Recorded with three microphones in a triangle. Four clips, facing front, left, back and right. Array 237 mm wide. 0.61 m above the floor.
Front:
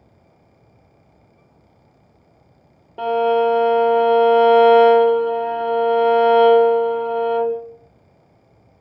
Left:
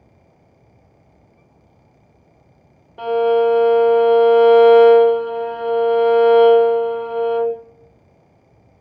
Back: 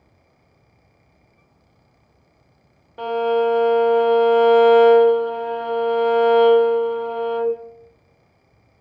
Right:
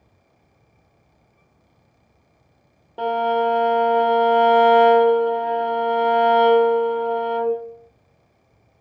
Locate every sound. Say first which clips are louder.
3.0 s a violin: left 5 dB, front 3 dB; 40° right, 1.3 m